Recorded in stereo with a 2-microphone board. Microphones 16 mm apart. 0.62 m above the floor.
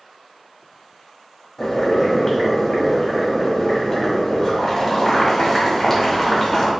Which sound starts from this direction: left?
Boiling, at 1.6 s.